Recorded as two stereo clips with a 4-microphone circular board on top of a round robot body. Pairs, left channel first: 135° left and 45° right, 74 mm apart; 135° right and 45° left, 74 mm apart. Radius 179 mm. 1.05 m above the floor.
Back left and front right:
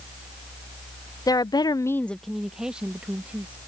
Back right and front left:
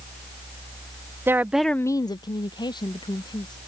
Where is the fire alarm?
I don't hear a fire alarm.